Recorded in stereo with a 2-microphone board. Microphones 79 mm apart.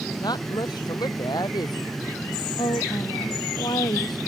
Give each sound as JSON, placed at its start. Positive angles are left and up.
{"t": 0.2, "sound": "a woman speaking", "side_deg": 60}
{"t": 2.6, "sound": "a woman speaking", "side_deg": 65}